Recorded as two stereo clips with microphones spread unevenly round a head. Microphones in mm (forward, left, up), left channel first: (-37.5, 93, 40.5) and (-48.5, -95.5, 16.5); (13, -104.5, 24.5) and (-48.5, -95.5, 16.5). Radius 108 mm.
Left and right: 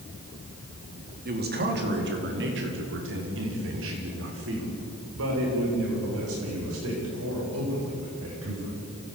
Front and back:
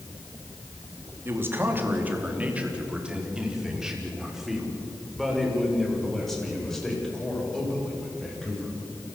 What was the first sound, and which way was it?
A man speaking, 135° right.